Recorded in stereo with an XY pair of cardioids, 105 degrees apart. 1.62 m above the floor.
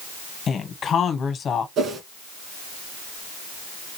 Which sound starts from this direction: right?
A whoosh, at 1.8 s.